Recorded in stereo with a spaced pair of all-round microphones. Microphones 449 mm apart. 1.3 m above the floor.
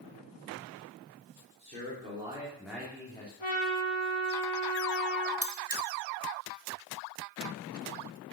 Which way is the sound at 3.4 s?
80° left.